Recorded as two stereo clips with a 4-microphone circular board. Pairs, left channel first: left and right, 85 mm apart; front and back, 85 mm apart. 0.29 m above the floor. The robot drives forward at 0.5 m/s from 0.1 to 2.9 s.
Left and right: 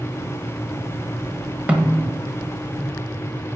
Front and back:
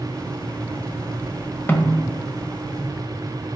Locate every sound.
1.7 s a snare drum: 35° right, 1.2 m; by 2.0 s 45° right, 1.2 m